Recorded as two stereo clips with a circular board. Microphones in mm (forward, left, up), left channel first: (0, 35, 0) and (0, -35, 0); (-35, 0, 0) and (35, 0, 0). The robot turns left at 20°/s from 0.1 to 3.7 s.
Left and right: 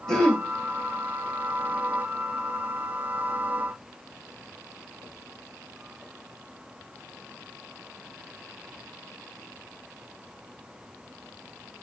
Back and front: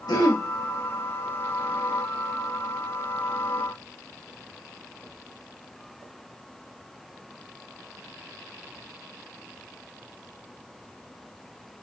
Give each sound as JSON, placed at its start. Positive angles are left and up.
{"t": 0.1, "sound": "throat clearing", "azimuth_deg": 170, "distance_m": 0.7}